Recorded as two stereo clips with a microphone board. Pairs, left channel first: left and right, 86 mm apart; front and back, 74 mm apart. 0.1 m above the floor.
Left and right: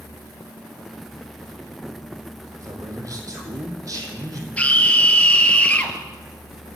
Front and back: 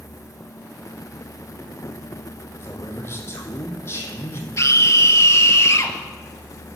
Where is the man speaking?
50° right, 4 m.